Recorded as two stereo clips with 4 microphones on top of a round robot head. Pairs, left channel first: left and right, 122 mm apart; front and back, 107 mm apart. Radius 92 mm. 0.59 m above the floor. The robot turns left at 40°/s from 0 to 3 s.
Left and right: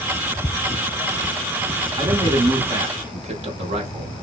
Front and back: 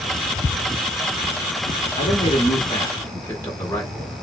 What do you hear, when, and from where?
2.0 s a man speaking: 30° right, 1.1 m; by 4.1 s 70° right, 1.1 m